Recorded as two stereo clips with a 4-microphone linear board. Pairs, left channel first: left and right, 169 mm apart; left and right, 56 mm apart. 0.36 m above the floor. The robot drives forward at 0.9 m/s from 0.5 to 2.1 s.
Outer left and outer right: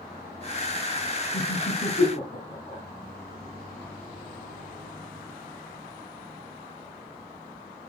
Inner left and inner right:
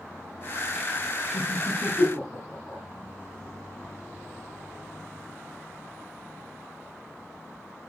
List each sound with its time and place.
1.3 s laughter: 60° left (ahead or behind), 2.5 m; by 2.8 s 50° left (ahead or behind), 3 m